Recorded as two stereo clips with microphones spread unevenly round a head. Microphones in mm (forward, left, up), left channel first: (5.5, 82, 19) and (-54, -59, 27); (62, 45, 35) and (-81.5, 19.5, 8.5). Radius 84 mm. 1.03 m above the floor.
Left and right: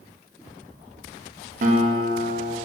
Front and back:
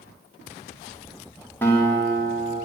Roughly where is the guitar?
Right.